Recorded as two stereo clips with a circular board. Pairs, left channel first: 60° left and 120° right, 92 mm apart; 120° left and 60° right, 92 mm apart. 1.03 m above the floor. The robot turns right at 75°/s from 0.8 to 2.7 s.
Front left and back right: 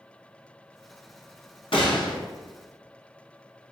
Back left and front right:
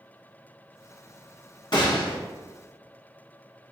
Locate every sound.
1.7 s a gunshot: 85° left, 1.1 m; by 2.2 s 115° left, 1.1 m